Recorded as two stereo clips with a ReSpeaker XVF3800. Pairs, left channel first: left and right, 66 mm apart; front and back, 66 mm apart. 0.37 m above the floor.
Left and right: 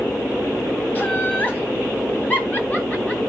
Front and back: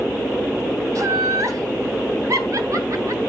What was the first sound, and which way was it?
Laughter, 150° left.